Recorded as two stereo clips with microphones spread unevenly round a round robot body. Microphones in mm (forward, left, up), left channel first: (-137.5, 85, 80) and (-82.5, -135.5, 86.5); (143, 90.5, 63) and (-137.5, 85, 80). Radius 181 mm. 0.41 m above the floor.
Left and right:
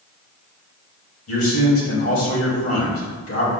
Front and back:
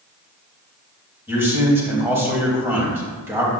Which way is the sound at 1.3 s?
100° left.